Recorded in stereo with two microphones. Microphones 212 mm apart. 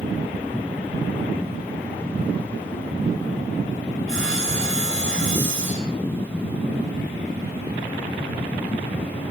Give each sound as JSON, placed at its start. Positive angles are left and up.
{"t": 4.1, "sound": "sawing", "side_deg": -75, "distance_m": 9.5}